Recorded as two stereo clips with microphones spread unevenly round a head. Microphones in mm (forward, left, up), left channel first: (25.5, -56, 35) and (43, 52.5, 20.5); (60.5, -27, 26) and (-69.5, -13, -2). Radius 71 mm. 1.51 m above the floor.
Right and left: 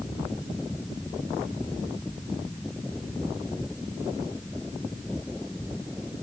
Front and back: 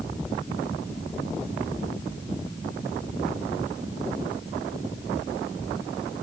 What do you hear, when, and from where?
Only background noise.